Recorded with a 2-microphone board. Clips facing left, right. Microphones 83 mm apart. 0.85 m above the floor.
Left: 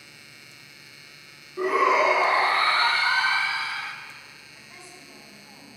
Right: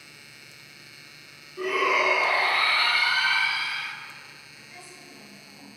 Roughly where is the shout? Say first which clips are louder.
Left 4 dB; left.